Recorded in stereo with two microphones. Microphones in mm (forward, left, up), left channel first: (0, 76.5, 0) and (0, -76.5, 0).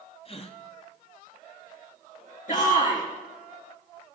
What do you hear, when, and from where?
0.2 s a gasp: 40° left (ahead or behind), 1.0 m
2.5 s a shout: 60° left (ahead or behind), 3.5 m